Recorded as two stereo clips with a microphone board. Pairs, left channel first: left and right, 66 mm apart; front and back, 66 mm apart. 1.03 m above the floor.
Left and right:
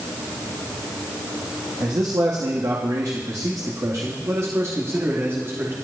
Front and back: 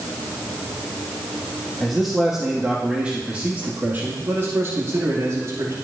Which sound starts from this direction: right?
A man speaking, at 1.8 s.